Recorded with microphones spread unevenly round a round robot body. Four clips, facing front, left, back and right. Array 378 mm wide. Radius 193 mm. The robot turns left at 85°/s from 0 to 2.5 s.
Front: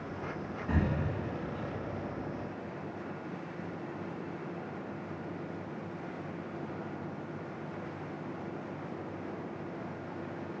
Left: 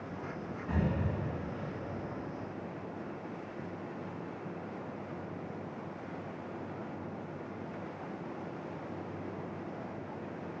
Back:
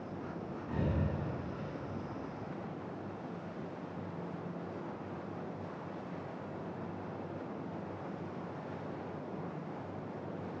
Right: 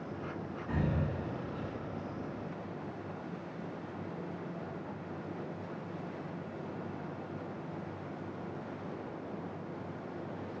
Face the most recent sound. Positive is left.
turn(degrees=-135)